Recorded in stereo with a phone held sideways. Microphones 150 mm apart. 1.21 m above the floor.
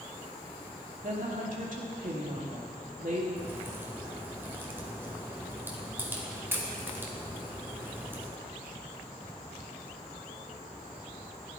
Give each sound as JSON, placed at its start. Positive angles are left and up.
{"t": 1.0, "sound": "a woman speaking", "side_deg": -60, "distance_m": 2.5}
{"t": 3.4, "sound": "a crack", "side_deg": -15, "distance_m": 2.0}